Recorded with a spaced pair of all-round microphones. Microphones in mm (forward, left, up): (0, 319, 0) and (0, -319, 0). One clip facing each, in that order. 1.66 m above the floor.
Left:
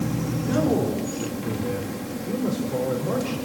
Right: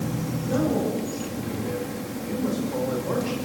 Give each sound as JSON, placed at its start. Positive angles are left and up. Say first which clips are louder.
{"t": 0.4, "sound": "a man speaking", "louder": "left 2 dB", "side_deg": 80, "distance_m": 4.0}